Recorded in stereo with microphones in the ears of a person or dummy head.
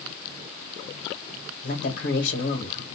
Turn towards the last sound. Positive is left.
turn(degrees=65)  # may be behind; listen again after turning